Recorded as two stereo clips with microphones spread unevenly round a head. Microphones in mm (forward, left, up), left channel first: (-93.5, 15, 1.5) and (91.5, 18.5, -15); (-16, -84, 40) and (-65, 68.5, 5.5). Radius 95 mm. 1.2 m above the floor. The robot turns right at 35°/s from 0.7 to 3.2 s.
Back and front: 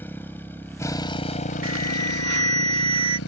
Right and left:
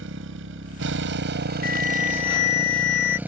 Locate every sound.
0.0 s a motorcycle: 105° left; by 3.3 s 170° right
1.6 s an alarm: 25° right; by 3.2 s 30° left